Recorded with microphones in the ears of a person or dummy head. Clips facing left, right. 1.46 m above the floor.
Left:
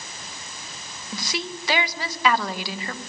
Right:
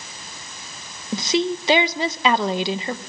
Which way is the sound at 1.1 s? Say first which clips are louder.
Right 11 dB; 20° right (ahead or behind).